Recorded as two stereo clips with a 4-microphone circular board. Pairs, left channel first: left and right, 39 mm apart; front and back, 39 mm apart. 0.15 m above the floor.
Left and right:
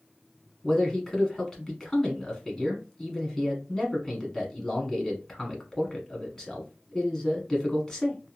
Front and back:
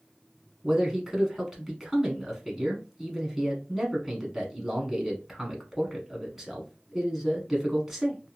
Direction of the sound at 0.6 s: 115° left.